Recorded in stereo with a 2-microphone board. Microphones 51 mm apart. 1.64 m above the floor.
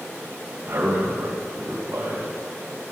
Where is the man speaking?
55° right (ahead or behind), 4 m.